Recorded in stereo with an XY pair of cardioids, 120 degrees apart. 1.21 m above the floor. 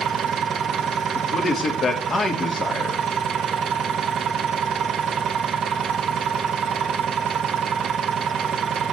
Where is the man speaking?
40° left, 2 m.